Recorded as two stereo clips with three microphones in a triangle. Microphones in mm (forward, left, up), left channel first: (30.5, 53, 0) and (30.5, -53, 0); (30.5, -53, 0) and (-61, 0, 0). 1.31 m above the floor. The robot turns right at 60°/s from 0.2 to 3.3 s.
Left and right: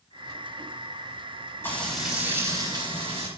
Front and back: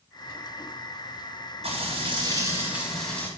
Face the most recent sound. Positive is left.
turn(degrees=-100)